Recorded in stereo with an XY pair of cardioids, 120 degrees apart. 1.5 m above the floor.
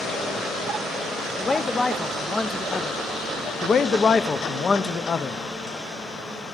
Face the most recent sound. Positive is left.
turn(degrees=35)